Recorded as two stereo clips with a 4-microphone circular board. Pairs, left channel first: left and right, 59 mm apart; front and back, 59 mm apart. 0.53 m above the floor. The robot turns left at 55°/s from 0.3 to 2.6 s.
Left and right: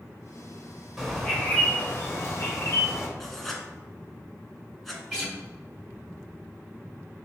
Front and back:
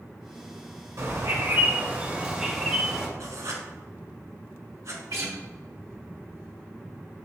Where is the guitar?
175° left, 1.9 m.